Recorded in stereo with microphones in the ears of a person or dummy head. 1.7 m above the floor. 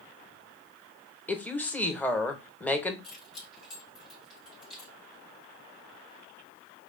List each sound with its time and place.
1.3 s a woman speaking: 10° left (ahead or behind), 0.7 m
3.0 s keys jangling: 45° left (ahead or behind), 1.6 m